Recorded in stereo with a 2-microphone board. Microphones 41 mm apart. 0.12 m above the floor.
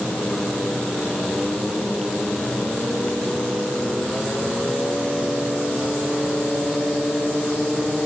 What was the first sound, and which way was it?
Only background noise.